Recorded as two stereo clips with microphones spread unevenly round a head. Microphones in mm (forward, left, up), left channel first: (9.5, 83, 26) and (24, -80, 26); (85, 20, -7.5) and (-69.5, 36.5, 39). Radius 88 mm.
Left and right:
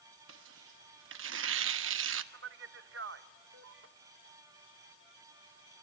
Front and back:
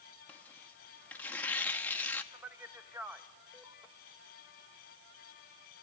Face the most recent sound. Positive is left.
turn(degrees=-105)